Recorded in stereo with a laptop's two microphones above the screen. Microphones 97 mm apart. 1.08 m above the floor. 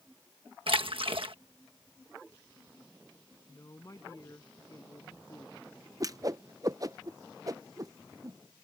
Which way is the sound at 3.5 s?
35° left (ahead or behind).